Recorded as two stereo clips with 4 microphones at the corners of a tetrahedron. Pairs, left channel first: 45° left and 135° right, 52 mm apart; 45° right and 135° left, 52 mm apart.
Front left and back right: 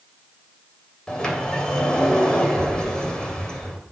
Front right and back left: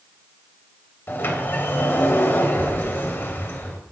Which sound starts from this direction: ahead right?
A sliding door, at 1.1 s.